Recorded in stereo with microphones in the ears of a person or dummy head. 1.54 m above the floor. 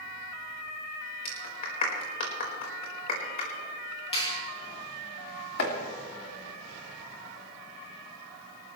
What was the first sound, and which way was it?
A clap, 40° left (ahead or behind).